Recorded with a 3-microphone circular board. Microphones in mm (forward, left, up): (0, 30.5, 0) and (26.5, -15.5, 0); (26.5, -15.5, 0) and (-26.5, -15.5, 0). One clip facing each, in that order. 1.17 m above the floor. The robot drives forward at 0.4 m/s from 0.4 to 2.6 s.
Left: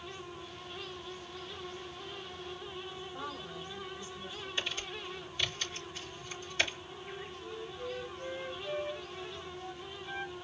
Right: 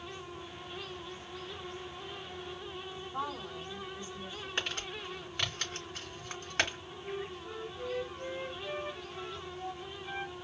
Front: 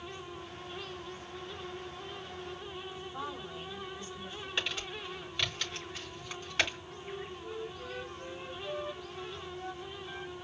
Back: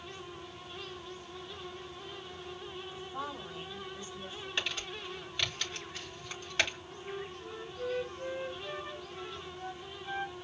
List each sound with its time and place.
2.9 s a woman speaking: 115° right, 3.5 m
4.6 s crumpling: 90° right, 3.5 m
7.0 s a flute: 120° right, 1.1 m